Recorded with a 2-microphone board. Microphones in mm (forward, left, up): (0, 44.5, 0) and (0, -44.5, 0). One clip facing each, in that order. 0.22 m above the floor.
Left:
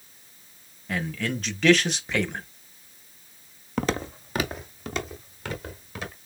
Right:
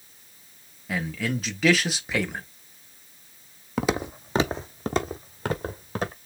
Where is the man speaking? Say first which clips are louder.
Right 1 dB; 5° right (ahead or behind), 1.0 m.